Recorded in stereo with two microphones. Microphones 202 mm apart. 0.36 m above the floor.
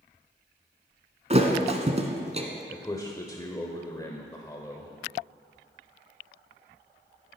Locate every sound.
1.3 s a thud: 35° right (ahead or behind), 1.4 m
2.7 s a man speaking: 20° left (ahead or behind), 0.9 m